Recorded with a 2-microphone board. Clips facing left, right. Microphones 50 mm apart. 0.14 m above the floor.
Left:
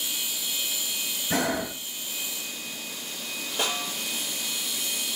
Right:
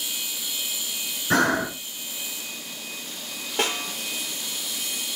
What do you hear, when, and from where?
1.3 s breathing: 60° right (ahead or behind), 1.7 m
3.6 s a snare drum: 65° right (ahead or behind), 4 m